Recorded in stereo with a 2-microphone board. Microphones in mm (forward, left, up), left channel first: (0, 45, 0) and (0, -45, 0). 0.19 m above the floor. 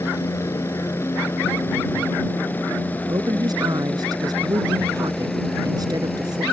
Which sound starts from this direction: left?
A helicopter, at 0.0 s.